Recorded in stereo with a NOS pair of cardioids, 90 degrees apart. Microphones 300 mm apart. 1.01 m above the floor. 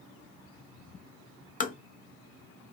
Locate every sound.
1.6 s tapping: 25° left, 0.6 m